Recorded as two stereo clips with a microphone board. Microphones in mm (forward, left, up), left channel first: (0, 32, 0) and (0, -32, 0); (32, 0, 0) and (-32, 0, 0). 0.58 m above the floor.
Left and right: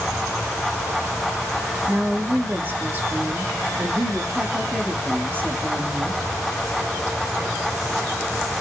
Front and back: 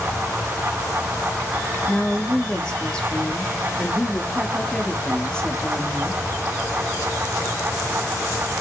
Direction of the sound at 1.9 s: 65° right.